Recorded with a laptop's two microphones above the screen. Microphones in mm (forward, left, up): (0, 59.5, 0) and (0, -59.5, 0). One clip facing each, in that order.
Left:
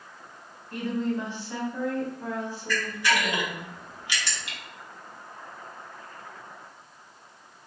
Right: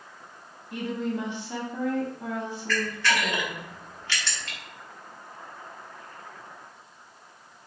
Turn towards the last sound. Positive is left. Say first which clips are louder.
# even
turn(degrees=15)  # may be behind; listen again after turning